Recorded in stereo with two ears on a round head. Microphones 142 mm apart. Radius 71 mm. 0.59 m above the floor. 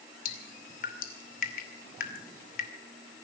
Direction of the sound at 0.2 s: 60° left (ahead or behind).